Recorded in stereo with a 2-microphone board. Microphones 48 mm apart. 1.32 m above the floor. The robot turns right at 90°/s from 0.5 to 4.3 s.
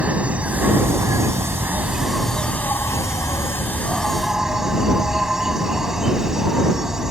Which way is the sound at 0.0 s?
150° right.